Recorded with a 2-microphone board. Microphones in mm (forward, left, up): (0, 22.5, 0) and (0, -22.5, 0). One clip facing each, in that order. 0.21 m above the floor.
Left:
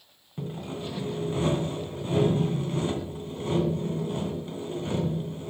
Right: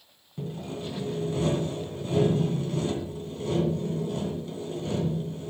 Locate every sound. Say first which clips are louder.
0.4 s sawing: even; 30° left (ahead or behind), 2.5 m